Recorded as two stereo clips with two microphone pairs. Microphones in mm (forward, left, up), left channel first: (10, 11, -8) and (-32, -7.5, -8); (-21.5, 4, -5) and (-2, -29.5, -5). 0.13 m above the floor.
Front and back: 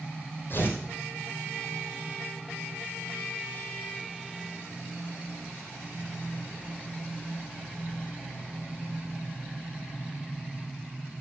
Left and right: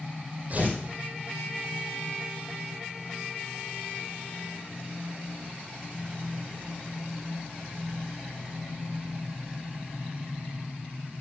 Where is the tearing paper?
10° right, 3 m.